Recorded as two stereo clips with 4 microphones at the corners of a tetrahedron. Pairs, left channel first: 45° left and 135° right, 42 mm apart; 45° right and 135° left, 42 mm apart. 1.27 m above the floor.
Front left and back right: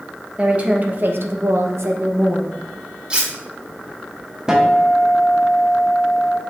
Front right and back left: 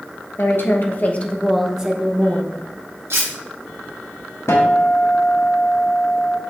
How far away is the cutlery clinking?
About 1.6 m.